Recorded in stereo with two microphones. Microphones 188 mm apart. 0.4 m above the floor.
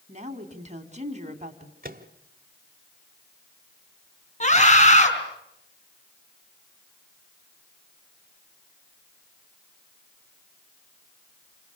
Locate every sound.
0.1 s a woman speaking: 40° right (ahead or behind), 3 m
1.8 s a microwave: 50° right (ahead or behind), 1.5 m
4.4 s a scream: 40° left (ahead or behind), 5 m